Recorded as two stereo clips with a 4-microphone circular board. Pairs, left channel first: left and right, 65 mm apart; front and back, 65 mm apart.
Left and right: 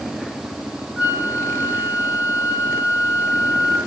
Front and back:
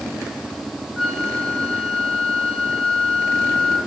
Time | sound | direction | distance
1.0 | a flute | 110° right | 1.1 m